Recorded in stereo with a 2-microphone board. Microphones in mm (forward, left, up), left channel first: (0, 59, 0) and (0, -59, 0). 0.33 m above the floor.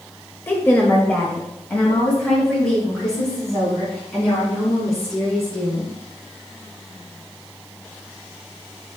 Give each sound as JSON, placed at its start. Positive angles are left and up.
{"t": 0.5, "sound": "a woman speaking", "side_deg": 20, "distance_m": 1.2}